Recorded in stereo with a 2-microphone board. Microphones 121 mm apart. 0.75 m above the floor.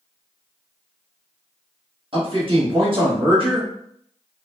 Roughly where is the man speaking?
Right.